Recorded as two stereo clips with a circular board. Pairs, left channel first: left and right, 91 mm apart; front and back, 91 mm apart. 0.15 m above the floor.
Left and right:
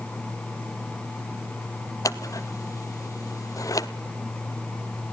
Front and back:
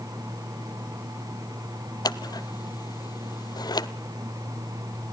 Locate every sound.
2.0 s scissors: 40° left, 0.6 m